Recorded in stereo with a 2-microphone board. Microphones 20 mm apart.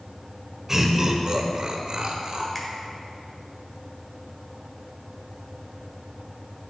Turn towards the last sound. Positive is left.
turn(degrees=15)  # may be behind; listen again after turning